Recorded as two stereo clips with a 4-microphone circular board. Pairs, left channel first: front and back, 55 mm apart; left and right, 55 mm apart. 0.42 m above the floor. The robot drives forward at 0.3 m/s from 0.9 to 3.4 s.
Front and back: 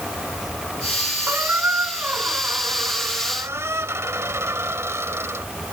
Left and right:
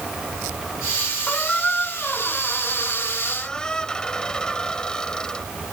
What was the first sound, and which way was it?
A squeak, 145° left.